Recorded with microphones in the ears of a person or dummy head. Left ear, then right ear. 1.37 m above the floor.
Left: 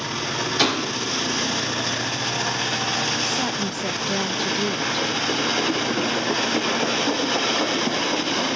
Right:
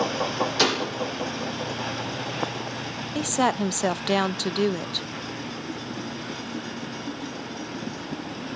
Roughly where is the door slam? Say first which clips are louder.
Left 2 dB; centre.